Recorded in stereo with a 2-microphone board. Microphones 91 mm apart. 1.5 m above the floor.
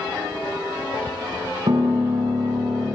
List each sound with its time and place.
1.7 s a piano: 50° right (ahead or behind), 1.4 m